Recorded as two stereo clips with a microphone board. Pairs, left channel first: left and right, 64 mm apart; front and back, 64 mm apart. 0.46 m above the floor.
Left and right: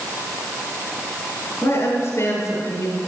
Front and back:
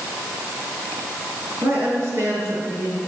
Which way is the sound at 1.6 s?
135° left.